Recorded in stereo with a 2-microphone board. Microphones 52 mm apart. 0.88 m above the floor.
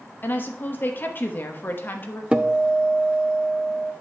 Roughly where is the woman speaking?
Left.